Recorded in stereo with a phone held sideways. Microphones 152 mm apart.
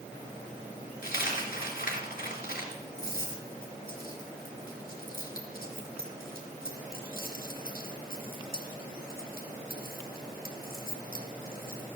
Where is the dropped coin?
75° left (ahead or behind), 3 m.